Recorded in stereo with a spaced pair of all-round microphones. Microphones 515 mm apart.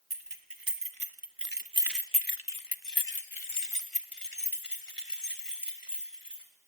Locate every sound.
0.1 s keys jangling: 50° right (ahead or behind), 2 m; by 6.5 s 75° left (ahead or behind), 4 m